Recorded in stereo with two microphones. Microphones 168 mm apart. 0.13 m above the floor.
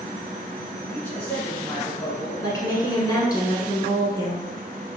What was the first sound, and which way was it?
A man speaking, 10° left (ahead or behind).